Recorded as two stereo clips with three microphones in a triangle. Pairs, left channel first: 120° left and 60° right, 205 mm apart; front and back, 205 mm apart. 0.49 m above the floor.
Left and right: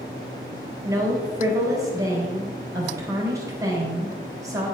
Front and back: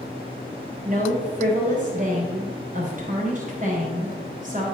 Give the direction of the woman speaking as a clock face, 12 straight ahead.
4 o'clock.